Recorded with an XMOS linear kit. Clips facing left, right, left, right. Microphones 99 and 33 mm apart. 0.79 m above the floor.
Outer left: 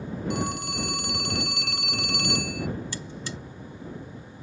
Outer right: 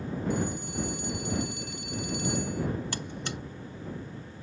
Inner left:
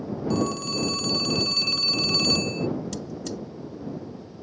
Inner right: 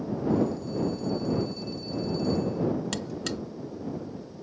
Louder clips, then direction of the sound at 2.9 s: Even, inner right 1 dB; 60° right (ahead or behind).